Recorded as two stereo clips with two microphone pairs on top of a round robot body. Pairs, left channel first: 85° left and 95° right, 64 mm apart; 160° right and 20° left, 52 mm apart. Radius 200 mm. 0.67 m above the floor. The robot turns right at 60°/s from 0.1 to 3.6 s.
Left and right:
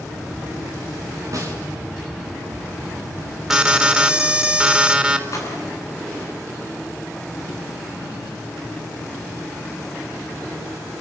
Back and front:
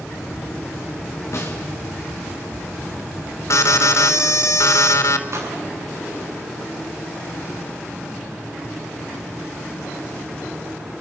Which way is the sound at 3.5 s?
Straight behind.